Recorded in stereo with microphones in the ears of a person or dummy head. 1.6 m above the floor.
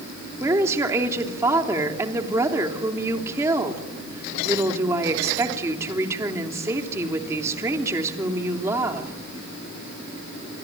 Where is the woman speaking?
15° right (ahead or behind), 3 m.